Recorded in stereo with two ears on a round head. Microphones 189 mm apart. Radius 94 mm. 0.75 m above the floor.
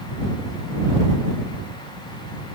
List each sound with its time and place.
Only background noise.